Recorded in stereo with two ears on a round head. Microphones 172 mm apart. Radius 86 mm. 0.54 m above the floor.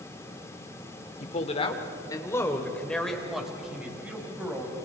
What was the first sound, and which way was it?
A man speaking, 40° left (ahead or behind).